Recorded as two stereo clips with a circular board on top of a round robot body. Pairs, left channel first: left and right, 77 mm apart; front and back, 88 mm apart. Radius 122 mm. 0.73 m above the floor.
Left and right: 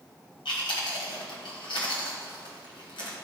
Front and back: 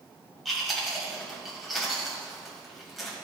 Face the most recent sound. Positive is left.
turn(degrees=90)